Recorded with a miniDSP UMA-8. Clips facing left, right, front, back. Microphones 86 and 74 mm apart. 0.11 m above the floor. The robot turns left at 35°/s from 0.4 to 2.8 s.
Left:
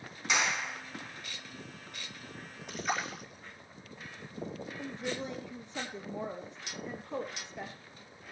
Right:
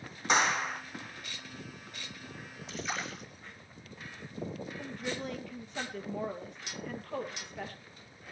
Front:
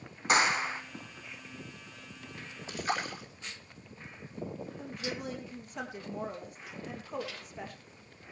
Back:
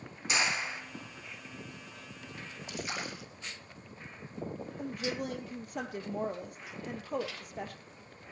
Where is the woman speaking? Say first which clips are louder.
Left 2 dB, back 4 dB; 155° left, 3 m.